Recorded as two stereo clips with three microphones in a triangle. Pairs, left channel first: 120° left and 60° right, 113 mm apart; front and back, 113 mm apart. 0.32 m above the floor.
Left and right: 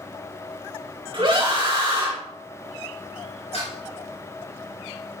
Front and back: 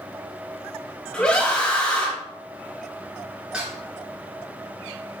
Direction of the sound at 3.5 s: 100° left.